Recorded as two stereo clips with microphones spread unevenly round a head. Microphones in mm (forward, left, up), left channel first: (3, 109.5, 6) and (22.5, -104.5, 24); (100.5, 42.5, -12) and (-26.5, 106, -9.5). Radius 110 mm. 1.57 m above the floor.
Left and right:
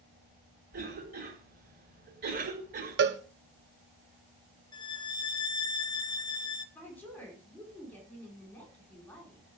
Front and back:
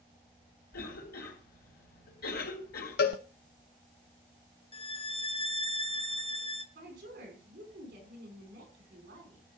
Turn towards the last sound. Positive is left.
turn(degrees=180)